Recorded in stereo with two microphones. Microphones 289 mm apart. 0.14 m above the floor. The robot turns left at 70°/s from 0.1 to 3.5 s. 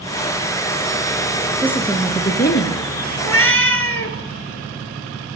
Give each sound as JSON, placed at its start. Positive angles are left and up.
{"t": 1.6, "sound": "a woman speaking", "azimuth_deg": -170, "distance_m": 1.7}
{"t": 3.2, "sound": "a cat meowing", "side_deg": 55, "distance_m": 1.3}